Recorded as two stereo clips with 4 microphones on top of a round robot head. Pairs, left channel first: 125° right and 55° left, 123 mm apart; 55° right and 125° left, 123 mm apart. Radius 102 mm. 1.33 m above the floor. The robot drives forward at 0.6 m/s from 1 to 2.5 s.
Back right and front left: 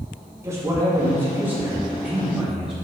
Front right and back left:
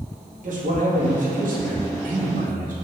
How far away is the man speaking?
About 2 m.